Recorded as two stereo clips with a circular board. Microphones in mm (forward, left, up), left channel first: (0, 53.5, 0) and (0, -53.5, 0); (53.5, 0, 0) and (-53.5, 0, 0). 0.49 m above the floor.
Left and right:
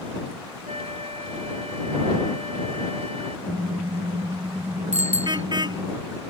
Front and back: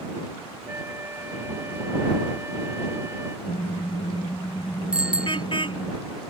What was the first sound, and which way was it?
A flute, 115° right.